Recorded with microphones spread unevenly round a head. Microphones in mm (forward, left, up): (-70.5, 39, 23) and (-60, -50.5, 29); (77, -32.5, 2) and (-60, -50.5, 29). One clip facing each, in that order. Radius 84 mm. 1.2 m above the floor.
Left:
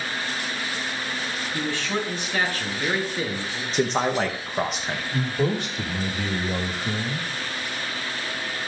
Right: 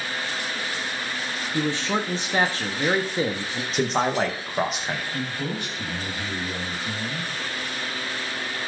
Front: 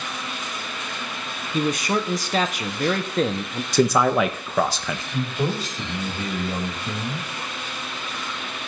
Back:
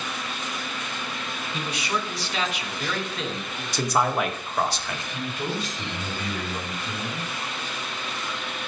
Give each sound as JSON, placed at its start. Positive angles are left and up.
{"t": 1.5, "sound": "a man speaking", "azimuth_deg": -15, "distance_m": 0.8}
{"t": 3.7, "sound": "a man speaking", "azimuth_deg": 5, "distance_m": 0.9}
{"t": 5.1, "sound": "a man speaking", "azimuth_deg": 70, "distance_m": 1.7}